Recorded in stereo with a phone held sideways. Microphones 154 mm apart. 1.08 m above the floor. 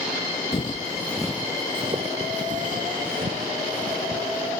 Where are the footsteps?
40° left (ahead or behind); by 4.5 s 75° right (ahead or behind).